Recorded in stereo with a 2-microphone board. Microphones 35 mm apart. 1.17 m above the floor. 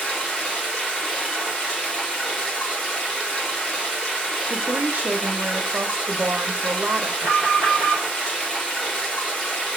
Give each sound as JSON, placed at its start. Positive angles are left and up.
{"t": 0.0, "sound": "running water", "side_deg": 25, "distance_m": 1.6}
{"t": 4.5, "sound": "a woman speaking", "side_deg": -70, "distance_m": 0.6}
{"t": 7.2, "sound": "an alarm", "side_deg": 50, "distance_m": 1.6}